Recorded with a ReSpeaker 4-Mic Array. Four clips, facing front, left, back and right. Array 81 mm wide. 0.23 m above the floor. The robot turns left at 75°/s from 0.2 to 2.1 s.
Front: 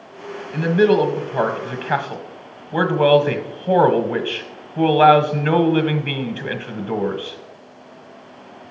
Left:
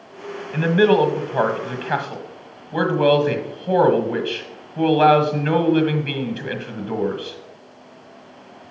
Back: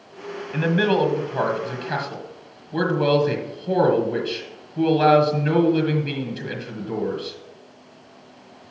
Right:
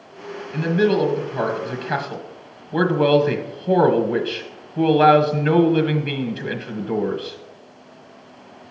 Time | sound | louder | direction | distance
0.5 | a man speaking | left 3 dB, front 5 dB | 130° left | 1.3 m